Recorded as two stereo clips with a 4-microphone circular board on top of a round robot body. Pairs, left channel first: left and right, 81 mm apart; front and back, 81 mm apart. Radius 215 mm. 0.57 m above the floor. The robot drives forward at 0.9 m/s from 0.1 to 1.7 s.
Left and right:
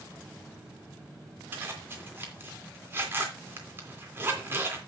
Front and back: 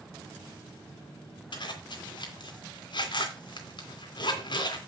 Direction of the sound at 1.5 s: 25° right.